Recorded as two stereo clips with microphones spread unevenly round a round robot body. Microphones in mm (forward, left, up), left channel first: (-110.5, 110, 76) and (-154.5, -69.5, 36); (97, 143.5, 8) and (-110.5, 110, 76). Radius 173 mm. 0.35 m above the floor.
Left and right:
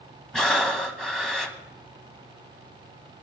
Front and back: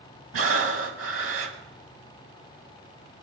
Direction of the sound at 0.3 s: 170° left.